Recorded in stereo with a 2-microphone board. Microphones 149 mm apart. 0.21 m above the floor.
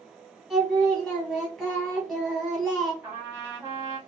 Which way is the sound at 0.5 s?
5° left (ahead or behind).